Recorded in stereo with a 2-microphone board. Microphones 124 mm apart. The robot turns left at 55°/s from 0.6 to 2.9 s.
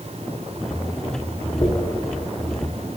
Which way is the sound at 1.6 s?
40° left (ahead or behind).